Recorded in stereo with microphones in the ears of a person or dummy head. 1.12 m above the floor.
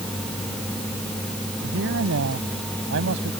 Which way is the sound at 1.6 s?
80° right.